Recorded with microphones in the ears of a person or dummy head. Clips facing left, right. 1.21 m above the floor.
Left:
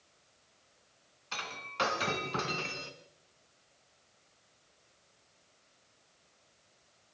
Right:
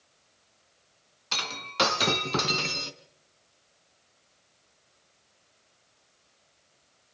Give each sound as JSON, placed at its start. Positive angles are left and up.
{"t": 1.3, "sound": "breaking glass", "side_deg": -60, "distance_m": 2.0}